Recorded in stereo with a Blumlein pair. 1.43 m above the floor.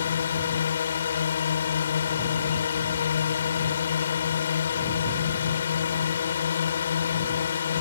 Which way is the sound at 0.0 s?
65° left.